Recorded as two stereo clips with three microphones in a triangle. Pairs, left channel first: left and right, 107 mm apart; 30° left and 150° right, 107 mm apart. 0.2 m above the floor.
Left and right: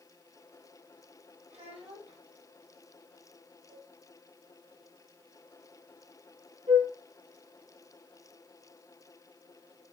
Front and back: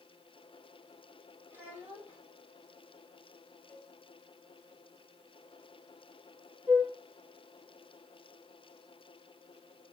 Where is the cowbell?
45° right, 4.5 m.